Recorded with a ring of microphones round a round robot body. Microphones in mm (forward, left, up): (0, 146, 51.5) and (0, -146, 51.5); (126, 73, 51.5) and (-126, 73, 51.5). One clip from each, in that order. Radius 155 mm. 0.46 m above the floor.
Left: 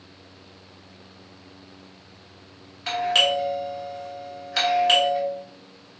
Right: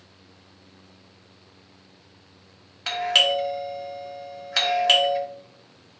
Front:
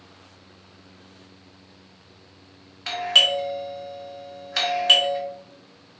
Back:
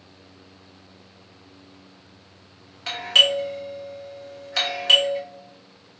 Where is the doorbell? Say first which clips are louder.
Even, back 1 dB; 80° right, 1.2 m.